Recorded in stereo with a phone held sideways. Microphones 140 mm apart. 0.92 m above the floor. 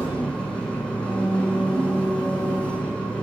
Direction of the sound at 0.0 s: 10° left (ahead or behind).